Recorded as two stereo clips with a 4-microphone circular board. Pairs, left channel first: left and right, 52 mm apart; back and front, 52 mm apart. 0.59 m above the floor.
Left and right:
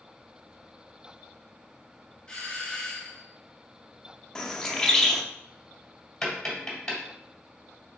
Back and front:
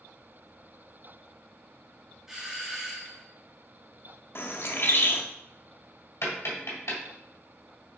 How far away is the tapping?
About 1.8 m.